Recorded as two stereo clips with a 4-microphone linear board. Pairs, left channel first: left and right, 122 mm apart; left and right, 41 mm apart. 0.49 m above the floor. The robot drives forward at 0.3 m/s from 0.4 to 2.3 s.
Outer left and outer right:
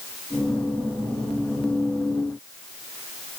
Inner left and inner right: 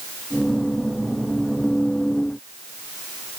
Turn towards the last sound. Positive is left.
No sound to turn to.